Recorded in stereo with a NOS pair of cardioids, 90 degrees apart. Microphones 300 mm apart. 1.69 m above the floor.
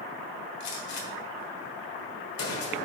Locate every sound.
0.6 s a gunshot: 65° left, 1.4 m